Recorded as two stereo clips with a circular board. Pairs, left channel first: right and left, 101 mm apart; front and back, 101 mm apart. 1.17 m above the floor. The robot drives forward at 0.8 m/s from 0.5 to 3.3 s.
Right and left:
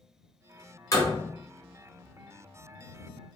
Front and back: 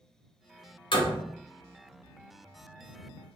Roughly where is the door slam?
Ahead right.